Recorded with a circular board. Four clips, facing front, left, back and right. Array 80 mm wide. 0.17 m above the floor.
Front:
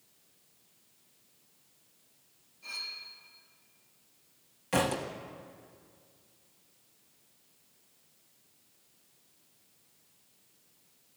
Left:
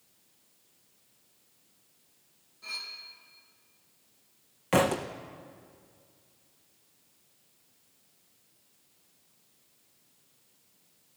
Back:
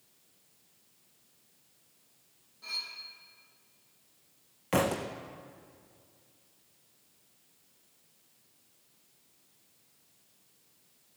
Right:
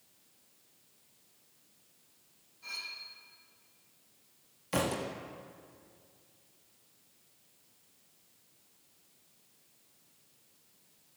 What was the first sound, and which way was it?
Cutlery clinking, 140° left.